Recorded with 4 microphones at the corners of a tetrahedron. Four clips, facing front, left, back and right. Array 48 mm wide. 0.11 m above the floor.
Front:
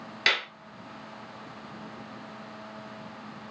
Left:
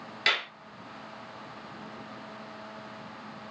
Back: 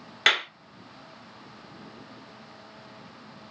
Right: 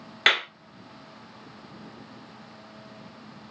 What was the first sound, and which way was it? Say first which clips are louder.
A clap: right 5 dB, back 3 dB; 120° right.